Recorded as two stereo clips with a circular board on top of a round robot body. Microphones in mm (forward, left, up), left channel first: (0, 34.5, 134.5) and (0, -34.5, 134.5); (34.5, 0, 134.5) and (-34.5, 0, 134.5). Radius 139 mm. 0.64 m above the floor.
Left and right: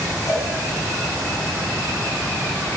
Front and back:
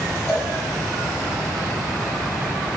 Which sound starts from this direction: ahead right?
A cowbell, at 0.3 s.